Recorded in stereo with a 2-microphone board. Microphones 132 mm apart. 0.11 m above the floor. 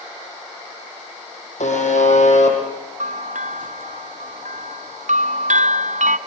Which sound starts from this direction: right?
A bell, at 3.0 s.